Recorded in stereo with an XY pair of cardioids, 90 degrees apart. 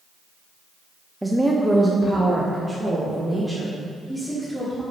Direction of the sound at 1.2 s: 10° right.